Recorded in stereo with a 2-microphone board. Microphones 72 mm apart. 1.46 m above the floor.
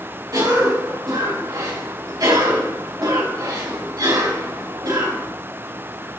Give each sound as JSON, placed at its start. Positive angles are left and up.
{"t": 0.3, "sound": "a cough", "side_deg": -60, "distance_m": 4.0}